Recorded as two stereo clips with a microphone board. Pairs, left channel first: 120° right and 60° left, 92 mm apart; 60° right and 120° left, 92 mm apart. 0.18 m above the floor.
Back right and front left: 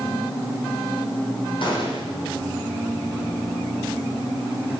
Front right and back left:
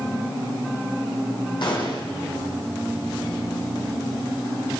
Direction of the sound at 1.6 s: 90° right.